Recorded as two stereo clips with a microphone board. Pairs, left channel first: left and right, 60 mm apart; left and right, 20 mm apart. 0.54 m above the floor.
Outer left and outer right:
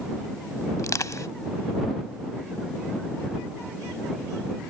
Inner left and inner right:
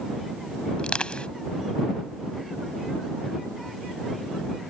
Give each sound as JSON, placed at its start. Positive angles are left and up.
{"t": 0.8, "sound": "crushing", "side_deg": 65}